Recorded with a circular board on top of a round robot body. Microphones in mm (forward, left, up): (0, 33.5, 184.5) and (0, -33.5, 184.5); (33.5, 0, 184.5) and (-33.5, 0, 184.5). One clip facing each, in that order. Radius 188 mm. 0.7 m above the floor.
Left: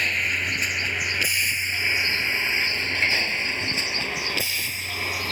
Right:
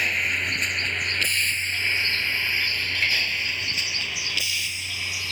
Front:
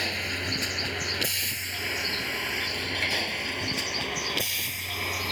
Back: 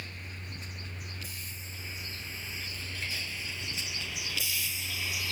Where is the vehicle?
5° right; by 5.3 s 40° left.